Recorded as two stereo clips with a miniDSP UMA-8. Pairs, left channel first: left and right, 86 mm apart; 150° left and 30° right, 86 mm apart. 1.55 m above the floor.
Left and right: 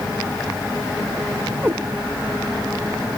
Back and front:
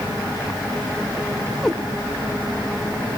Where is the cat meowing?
125° right, 1.4 m.